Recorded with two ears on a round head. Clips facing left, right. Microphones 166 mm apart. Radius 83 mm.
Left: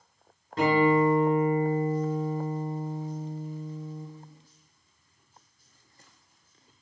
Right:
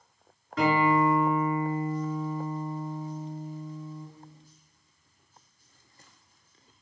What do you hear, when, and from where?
0.6 s a guitar: 20° left (ahead or behind), 3 m